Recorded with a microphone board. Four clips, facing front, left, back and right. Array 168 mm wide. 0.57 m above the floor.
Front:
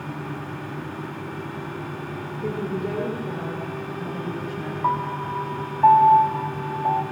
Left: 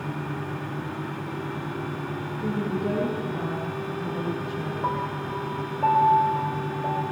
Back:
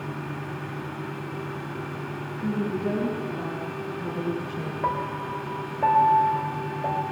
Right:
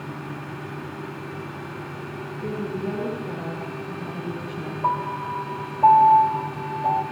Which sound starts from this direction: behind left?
A woman speaking, at 2.4 s.